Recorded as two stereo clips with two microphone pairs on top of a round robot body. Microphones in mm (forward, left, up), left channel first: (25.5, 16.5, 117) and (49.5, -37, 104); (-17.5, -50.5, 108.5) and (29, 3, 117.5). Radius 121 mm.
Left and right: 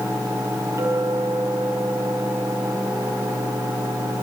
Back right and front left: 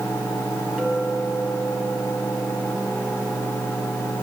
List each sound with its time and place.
0.8 s a clink: 30° right, 7 m